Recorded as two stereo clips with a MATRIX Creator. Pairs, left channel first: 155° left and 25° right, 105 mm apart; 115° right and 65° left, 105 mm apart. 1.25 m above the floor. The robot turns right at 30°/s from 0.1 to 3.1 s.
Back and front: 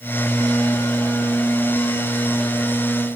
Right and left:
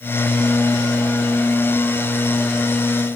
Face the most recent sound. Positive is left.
No sound to turn to.